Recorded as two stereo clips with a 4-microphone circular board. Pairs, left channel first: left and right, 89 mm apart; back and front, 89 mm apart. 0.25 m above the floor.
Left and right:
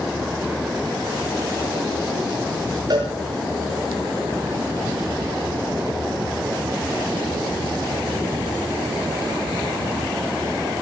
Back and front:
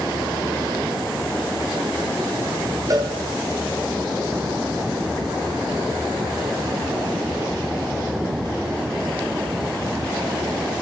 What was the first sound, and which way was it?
A cowbell, 45° right.